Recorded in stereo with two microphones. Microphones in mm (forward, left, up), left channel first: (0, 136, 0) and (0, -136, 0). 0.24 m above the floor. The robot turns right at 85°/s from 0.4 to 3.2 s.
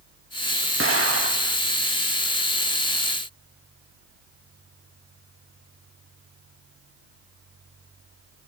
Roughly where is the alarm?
I don't hear an alarm.